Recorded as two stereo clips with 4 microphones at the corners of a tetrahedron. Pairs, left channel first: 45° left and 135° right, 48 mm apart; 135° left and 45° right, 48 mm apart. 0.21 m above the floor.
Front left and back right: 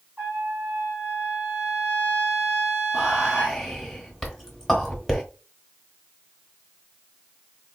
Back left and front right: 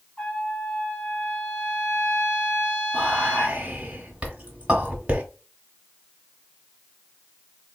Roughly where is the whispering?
Ahead right.